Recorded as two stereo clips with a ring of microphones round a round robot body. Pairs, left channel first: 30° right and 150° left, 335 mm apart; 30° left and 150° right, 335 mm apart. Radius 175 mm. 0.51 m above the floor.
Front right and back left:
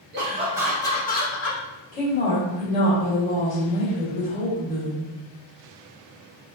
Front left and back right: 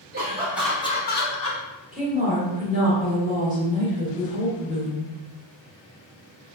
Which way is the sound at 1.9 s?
90° right.